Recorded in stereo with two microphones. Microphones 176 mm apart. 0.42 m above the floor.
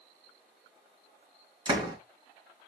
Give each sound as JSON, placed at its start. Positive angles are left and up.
{"t": 1.6, "sound": "a door slam", "side_deg": -25, "distance_m": 4.0}